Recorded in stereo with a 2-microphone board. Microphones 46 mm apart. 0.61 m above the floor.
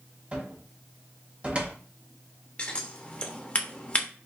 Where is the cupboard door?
25° right (ahead or behind), 0.8 m.